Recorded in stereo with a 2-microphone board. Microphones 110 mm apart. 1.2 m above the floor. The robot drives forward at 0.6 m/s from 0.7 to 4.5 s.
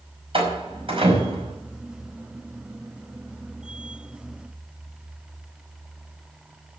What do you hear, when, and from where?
0.3 s a door slam: 60° right (ahead or behind), 5 m; by 1.6 s 55° right (ahead or behind), 5.5 m